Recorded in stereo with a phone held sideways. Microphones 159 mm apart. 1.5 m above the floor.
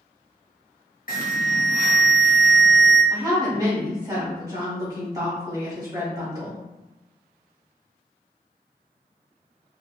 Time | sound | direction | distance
1.1 | an alarm | 55° left (ahead or behind) | 0.7 m
3.1 | a woman speaking | 25° right (ahead or behind) | 1.5 m